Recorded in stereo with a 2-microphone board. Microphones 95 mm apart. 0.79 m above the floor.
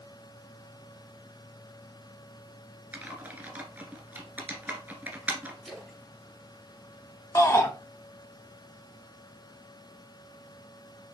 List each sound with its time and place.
2.9 s typing on a keyboard: 15° right (ahead or behind), 1.7 m
5.6 s a splash: centre (ahead or behind), 4.5 m
7.3 s a shout: 30° left (ahead or behind), 1.7 m